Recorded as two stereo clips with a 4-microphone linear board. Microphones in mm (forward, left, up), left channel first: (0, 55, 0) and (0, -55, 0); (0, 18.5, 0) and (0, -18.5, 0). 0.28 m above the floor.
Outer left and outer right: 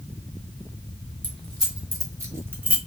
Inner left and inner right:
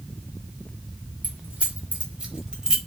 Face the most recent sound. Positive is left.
turn(degrees=-15)  # may be behind; listen again after turning